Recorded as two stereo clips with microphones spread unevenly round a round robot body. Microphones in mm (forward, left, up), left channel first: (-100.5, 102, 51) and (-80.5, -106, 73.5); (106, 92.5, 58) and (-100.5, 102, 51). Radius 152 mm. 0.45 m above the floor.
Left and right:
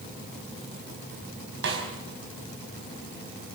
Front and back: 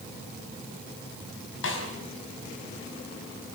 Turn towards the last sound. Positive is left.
turn(degrees=-40)